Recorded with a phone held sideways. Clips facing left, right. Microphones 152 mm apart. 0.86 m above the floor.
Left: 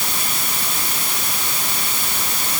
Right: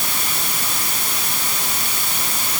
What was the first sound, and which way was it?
Only background noise.